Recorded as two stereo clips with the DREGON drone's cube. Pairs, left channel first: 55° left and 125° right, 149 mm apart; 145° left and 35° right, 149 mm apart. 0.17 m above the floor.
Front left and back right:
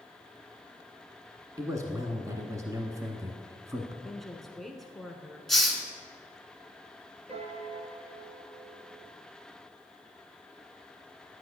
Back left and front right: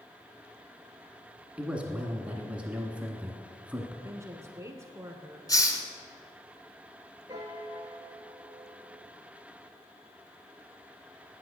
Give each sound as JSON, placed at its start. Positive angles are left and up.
{"t": 1.6, "sound": "a man speaking", "azimuth_deg": -105, "distance_m": 1.2}
{"t": 4.0, "sound": "a woman speaking", "azimuth_deg": -30, "distance_m": 1.1}
{"t": 5.5, "sound": "a hiss", "azimuth_deg": 145, "distance_m": 1.3}
{"t": 7.3, "sound": "a piano", "azimuth_deg": -90, "distance_m": 1.0}